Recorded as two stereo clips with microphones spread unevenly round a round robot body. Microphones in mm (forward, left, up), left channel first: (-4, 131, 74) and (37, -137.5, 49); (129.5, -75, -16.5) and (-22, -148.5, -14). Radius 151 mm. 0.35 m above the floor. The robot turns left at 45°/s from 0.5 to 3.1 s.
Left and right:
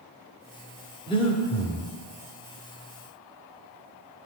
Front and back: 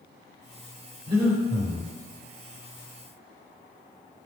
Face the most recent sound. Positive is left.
turn(degrees=75)